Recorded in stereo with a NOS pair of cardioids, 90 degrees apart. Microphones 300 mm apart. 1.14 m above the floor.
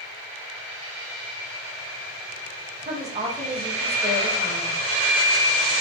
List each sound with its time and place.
2.8 s a woman speaking: 20° right, 0.9 m